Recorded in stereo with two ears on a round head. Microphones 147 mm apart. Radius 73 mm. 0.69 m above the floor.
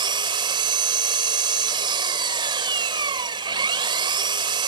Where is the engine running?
30° right (ahead or behind).